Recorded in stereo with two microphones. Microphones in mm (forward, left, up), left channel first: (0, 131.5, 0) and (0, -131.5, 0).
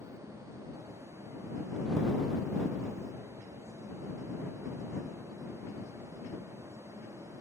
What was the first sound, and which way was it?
Only background noise.